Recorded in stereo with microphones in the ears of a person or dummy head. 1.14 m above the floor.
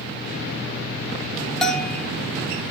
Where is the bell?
Centre (ahead or behind), 1.7 m.